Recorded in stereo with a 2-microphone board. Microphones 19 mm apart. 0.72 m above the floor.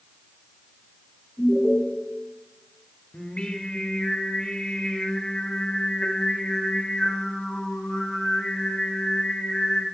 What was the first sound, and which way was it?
An alarm, 60° left (ahead or behind).